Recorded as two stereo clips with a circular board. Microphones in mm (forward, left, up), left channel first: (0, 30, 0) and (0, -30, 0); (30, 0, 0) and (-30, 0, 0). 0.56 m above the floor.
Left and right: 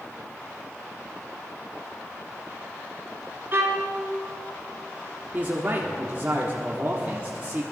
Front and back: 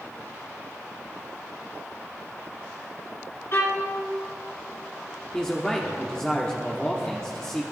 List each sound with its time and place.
3.5 s a violin: 40° right, 2 m
5.3 s a man speaking: 65° right, 1.2 m